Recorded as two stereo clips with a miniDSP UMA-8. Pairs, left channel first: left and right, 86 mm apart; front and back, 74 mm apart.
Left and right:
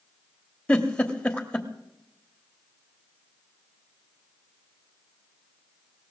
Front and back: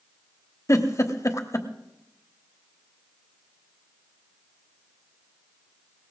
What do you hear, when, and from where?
0.7 s a giggle: 20° left, 1.2 m